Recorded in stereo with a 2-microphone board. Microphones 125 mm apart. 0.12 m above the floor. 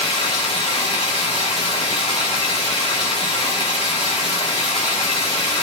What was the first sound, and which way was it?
Running water, 45° left (ahead or behind).